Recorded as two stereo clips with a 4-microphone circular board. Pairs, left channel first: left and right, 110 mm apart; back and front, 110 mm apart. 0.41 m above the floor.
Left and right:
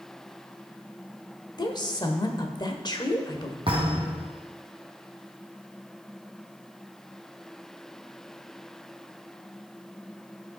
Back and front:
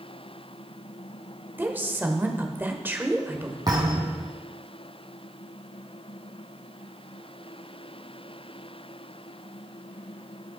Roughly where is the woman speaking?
Ahead left.